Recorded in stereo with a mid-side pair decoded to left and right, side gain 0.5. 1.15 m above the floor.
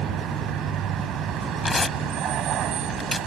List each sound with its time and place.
0.0 s a vehicle: 70° right
1.6 s tearing paper: 20° left